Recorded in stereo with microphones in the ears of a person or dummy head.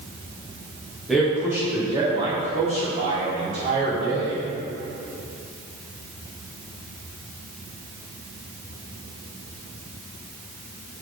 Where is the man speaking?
5° right (ahead or behind), 1.2 m; by 4.4 s 50° right (ahead or behind), 3 m.